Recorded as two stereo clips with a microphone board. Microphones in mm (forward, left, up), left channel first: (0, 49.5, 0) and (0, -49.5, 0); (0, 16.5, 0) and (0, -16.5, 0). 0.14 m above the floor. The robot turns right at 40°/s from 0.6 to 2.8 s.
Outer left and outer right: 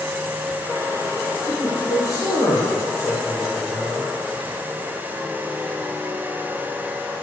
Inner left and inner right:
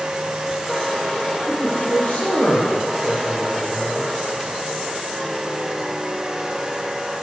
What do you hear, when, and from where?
1.5 s a man speaking: 110° left, 4 m; by 4.1 s 165° left, 4 m